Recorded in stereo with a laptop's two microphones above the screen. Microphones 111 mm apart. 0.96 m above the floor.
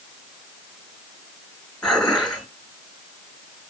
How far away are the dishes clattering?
About 3 m.